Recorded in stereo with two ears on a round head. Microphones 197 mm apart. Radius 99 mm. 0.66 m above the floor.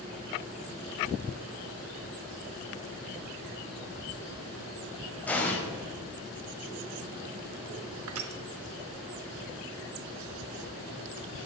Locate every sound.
5.3 s an explosion: 5° left (ahead or behind), 2 m
8.1 s crushing: 75° right (ahead or behind), 1.1 m